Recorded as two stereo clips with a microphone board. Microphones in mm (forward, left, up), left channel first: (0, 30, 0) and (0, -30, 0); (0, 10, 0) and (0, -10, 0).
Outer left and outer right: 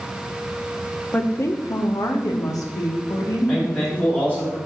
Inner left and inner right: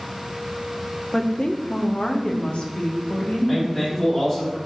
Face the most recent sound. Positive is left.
turn(degrees=30)  # may be behind; listen again after turning